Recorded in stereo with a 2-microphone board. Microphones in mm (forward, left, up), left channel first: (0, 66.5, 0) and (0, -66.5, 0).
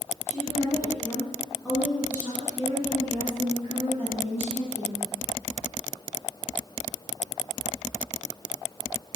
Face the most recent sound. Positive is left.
turn(degrees=-50)  # may be behind; listen again after turning